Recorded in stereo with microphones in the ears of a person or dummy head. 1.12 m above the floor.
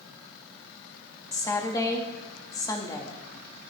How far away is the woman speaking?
About 2 m.